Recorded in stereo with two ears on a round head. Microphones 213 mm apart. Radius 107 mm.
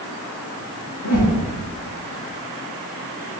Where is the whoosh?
75° left (ahead or behind), 4 m.